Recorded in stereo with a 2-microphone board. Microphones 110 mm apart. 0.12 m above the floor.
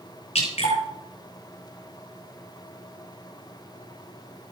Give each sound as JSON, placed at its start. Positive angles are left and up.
{"t": 0.3, "sound": "dripping", "side_deg": 80, "distance_m": 7.0}